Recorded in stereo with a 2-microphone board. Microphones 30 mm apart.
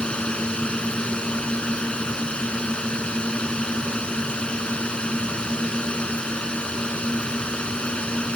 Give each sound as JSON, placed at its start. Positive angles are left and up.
{"t": 0.0, "sound": "a drone", "side_deg": 40}